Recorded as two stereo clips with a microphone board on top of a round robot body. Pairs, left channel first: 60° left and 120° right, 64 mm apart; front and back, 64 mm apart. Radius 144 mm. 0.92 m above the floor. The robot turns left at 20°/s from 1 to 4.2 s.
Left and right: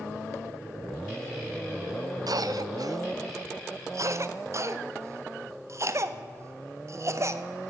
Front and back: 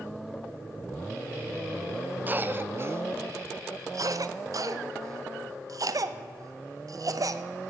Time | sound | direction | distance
2.3 | a cough | 120° right | 0.8 m